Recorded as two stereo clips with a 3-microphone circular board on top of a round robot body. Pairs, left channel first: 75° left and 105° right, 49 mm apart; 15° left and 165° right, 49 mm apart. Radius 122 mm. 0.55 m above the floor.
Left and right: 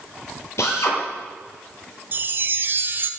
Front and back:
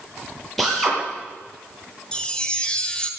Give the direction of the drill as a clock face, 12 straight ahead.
9 o'clock.